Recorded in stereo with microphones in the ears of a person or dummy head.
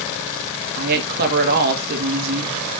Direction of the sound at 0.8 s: 55° right (ahead or behind).